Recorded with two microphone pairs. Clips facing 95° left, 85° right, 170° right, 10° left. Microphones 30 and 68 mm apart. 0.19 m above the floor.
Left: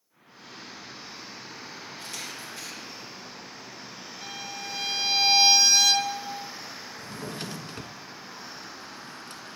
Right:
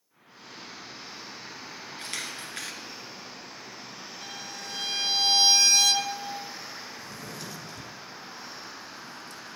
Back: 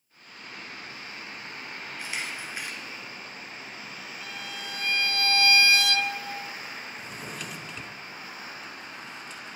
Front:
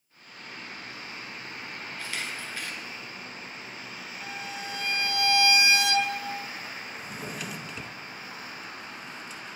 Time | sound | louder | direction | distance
2.0 | a camera shutter | right 3 dB, back 1 dB | 100° right | 2.0 m
4.2 | a violin | left 4 dB, front 3 dB | 30° left | 0.9 m
7.0 | a drawer | left 3 dB, front 1 dB | 100° left | 0.9 m